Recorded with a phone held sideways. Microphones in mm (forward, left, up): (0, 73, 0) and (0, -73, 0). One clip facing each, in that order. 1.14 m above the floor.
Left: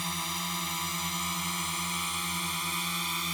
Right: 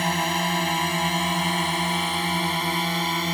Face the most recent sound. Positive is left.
turn(degrees=-70)  # may be behind; listen again after turning